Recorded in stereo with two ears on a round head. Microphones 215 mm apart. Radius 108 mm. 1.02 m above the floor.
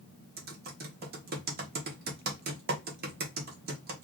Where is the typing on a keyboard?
40° right (ahead or behind), 1.0 m.